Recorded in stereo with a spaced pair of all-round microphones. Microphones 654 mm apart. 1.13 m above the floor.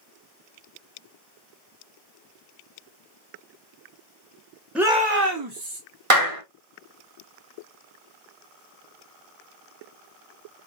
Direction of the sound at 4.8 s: Centre (ahead or behind).